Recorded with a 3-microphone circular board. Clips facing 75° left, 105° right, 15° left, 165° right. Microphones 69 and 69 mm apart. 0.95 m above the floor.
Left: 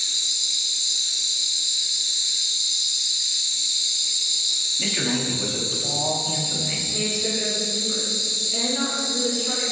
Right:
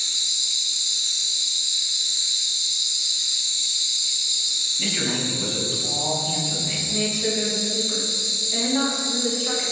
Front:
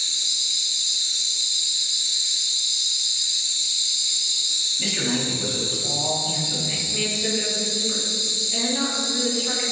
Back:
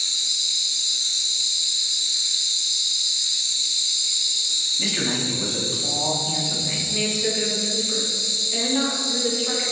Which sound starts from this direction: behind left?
A man speaking, at 4.8 s.